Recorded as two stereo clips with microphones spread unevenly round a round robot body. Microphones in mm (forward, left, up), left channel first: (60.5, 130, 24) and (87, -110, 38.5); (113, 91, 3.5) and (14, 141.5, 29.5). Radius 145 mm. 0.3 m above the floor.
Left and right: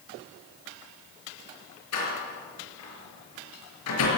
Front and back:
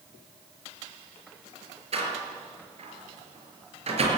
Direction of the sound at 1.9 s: 130° left.